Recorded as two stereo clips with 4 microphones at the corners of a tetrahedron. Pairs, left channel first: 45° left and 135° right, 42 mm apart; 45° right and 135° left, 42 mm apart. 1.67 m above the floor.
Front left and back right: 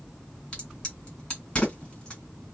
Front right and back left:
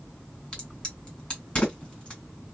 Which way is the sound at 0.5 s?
10° left.